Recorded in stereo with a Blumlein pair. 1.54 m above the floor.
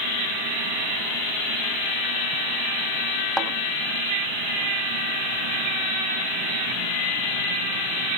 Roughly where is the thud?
Ahead.